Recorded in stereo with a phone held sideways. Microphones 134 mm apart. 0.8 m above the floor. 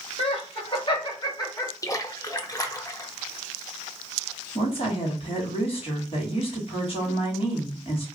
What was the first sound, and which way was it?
Laughter, 50° left (ahead or behind).